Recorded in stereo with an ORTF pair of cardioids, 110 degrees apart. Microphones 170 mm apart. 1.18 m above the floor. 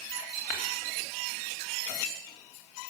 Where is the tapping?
70° left, 3 m.